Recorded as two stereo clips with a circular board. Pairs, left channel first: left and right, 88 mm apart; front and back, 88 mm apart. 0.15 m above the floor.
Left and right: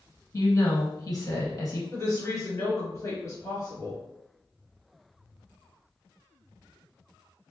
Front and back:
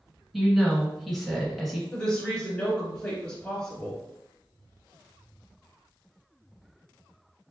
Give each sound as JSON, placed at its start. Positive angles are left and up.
{"t": 0.3, "sound": "a woman speaking", "azimuth_deg": 90, "distance_m": 1.4}
{"t": 1.9, "sound": "a woman speaking", "azimuth_deg": 65, "distance_m": 1.9}